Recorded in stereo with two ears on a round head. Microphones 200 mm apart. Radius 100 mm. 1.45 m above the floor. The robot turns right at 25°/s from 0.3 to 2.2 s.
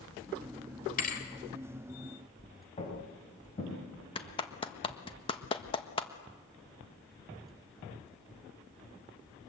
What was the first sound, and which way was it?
A thud, 40° left (ahead or behind).